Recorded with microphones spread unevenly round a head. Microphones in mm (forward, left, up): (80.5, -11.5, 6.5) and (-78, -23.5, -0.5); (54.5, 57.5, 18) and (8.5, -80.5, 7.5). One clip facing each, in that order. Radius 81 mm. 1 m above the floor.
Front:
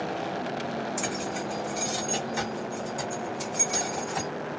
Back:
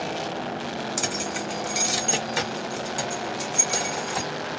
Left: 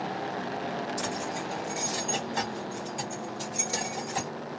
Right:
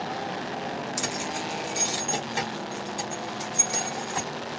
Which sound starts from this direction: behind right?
Keys jangling, at 1.0 s.